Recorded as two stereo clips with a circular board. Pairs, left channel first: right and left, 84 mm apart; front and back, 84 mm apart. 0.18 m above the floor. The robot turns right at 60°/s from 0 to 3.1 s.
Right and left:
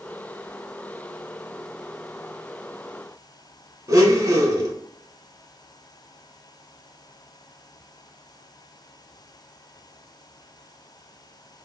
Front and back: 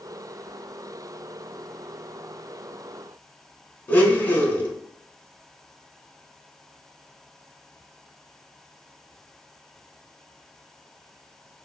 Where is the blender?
60° left, 0.7 m.